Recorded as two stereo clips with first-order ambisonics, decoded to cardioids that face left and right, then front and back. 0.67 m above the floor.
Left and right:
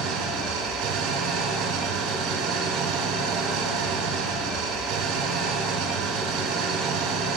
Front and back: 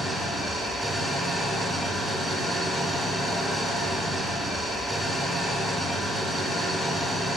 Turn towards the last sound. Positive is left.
turn(degrees=-90)